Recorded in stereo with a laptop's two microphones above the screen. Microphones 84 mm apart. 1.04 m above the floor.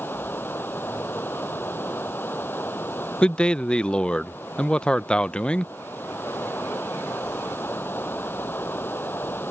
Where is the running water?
25° left (ahead or behind).